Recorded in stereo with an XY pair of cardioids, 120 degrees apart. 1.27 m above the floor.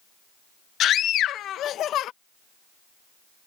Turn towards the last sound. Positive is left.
turn(degrees=60)